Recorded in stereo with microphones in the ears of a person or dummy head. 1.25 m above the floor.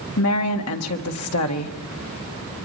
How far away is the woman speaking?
About 1.8 m.